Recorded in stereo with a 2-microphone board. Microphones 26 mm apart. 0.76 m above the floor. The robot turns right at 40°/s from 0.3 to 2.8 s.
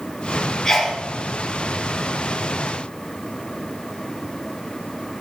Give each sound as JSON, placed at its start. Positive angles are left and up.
{"t": 0.7, "sound": "a sneeze", "side_deg": 20, "distance_m": 0.8}